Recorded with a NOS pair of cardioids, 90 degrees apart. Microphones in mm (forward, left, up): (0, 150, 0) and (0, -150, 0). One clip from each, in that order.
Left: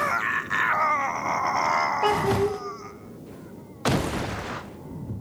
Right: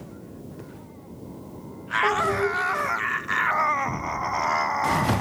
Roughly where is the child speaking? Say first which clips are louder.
Even; ahead.